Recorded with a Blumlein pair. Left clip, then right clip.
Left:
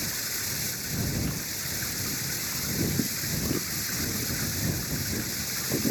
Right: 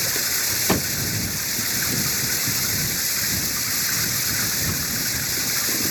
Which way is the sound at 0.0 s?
25° right.